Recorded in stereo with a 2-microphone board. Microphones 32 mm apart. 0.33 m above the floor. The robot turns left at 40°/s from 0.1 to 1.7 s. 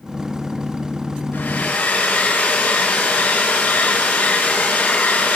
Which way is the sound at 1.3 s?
75° left (ahead or behind).